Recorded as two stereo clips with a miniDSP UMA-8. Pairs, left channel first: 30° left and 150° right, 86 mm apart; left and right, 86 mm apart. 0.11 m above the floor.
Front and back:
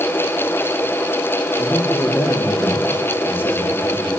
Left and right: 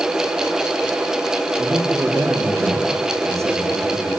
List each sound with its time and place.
1.6 s a man speaking: 35° right, 5 m